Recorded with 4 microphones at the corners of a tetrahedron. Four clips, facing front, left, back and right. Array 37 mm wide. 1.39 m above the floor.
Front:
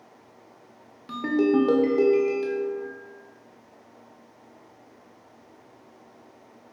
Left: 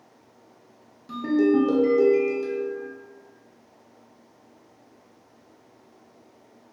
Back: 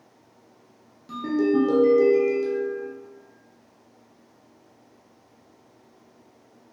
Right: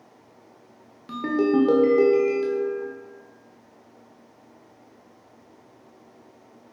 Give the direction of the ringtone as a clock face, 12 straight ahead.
2 o'clock.